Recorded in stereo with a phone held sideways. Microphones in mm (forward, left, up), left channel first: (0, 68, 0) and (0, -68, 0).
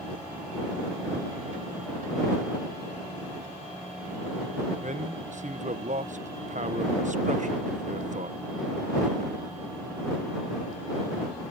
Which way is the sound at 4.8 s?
65° right (ahead or behind).